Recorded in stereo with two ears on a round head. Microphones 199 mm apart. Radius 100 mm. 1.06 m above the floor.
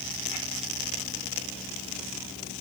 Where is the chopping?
No chopping in this recording.